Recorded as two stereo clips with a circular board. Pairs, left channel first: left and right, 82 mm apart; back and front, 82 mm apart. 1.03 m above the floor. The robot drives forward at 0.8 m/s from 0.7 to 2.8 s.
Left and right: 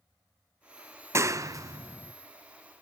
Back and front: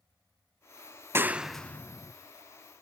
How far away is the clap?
About 0.6 m.